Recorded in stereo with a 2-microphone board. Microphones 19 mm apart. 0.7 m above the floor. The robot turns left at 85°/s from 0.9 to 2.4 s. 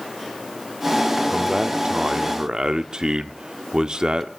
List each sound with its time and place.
1.3 s a man speaking: 20° right, 1.4 m; by 4.3 s 110° right, 1.4 m